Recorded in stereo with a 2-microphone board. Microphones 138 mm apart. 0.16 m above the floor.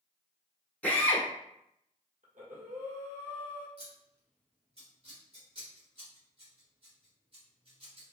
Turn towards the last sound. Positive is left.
turn(degrees=-45)  # may be behind; listen again after turning